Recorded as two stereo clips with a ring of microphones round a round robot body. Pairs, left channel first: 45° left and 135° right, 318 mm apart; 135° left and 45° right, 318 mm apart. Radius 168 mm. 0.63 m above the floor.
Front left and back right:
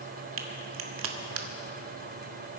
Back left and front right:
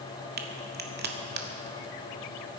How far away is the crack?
About 1.6 m.